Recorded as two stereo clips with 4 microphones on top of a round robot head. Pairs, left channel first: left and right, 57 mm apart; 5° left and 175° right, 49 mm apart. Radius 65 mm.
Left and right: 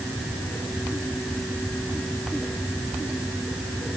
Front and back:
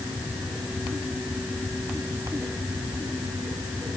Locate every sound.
Only background noise.